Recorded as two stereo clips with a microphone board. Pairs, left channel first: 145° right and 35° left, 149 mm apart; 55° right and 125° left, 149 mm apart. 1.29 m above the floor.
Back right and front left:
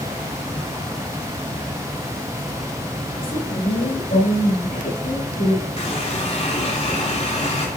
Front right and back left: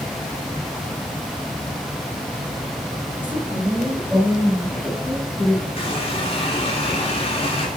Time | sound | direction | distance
3.2 | a woman speaking | 160° right | 5 m
5.8 | a running tap | 105° right | 2.5 m